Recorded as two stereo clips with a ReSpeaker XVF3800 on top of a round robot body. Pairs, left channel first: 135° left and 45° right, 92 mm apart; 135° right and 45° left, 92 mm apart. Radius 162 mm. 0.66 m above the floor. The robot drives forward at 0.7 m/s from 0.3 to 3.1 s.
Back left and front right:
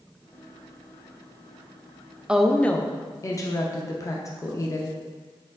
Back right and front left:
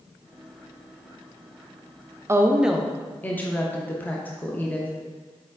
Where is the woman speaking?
25° left, 0.6 m; by 4.9 s 165° left, 0.6 m.